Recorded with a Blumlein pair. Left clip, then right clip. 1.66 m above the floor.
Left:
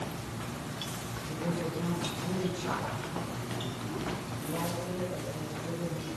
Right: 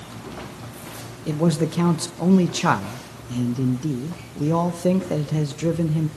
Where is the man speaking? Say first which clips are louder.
Right 13 dB; 40° right, 1.9 m.